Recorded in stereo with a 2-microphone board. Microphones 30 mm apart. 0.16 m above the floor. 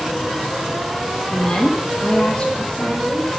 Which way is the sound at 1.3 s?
20° left (ahead or behind).